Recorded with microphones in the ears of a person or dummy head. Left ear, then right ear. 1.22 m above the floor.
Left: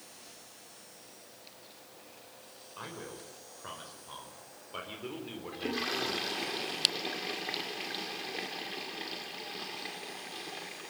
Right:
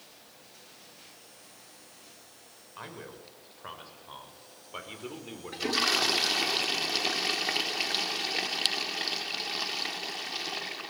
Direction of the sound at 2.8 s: 20° right (ahead or behind).